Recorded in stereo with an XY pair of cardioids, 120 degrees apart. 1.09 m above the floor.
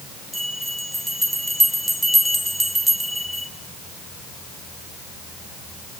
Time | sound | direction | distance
0.3 | a bell | 10° right | 1.9 m